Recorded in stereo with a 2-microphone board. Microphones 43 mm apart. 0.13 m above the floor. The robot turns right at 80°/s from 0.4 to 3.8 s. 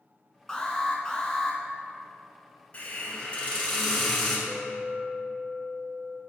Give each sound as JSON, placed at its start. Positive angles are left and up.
{"t": 0.5, "sound": "an alarm", "side_deg": 15, "distance_m": 0.9}
{"t": 2.7, "sound": "a hiss", "azimuth_deg": 75, "distance_m": 1.2}
{"t": 4.5, "sound": "a clink", "side_deg": -5, "distance_m": 0.8}